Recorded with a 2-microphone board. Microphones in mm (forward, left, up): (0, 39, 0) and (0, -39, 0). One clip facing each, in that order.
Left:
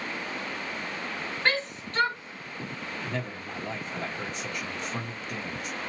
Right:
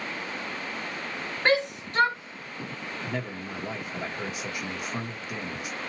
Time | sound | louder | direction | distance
1.4 | a shout | right 5 dB | 20° right (ahead or behind) | 1.5 m
3.0 | a man speaking | right 2 dB | 5° right (ahead or behind) | 1.3 m